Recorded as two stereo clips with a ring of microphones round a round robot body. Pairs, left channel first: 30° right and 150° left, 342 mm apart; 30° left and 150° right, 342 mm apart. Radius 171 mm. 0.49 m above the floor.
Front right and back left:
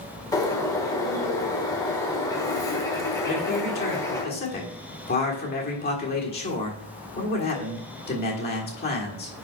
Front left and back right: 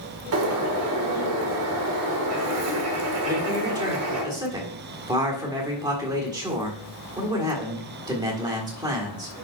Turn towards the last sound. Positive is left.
turn(degrees=-75)